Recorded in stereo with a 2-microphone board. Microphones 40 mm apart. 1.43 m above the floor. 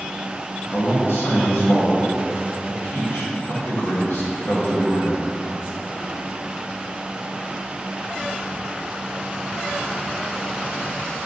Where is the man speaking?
80° left, 1.5 m.